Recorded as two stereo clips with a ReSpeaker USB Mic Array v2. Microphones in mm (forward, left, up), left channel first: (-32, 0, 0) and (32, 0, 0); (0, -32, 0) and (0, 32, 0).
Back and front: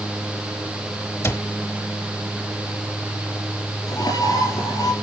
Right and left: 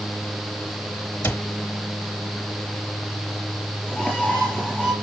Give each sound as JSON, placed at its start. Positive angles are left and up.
{"t": 1.2, "sound": "a cupboard door", "azimuth_deg": -140, "distance_m": 1.0}
{"t": 3.9, "sound": "a bird", "azimuth_deg": -165, "distance_m": 5.0}